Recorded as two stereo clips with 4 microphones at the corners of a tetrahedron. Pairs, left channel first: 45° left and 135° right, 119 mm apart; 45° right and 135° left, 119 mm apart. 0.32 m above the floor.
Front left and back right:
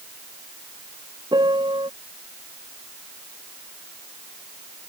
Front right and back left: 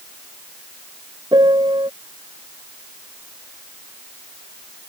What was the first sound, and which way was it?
A piano, straight behind.